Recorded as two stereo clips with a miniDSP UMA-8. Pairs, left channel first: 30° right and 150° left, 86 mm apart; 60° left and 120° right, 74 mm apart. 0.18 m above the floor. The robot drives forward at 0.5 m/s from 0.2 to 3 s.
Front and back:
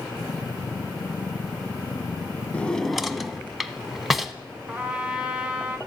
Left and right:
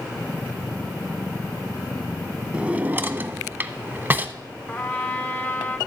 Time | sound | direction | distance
2.5 | a drawer | 70° right | 0.6 m
4.7 | a trumpet | 90° left | 1.2 m